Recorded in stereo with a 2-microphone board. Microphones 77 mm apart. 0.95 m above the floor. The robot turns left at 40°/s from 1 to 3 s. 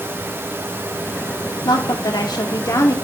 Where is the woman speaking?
100° left, 1.8 m; by 3.0 s 45° left, 1.8 m.